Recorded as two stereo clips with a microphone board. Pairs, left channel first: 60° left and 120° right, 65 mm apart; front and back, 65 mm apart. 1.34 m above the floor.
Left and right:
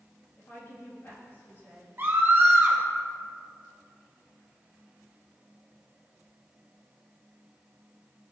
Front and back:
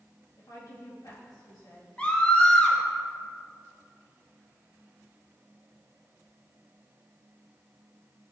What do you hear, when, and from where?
0.4 s a woman speaking: 10° left, 2.5 m
2.0 s a scream: 70° right, 2.5 m